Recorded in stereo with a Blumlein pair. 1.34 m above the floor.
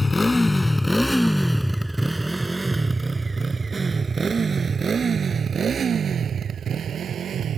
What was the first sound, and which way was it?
A motorcycle, 5° left.